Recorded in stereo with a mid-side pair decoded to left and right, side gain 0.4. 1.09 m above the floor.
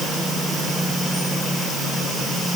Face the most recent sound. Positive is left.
No sound to turn to.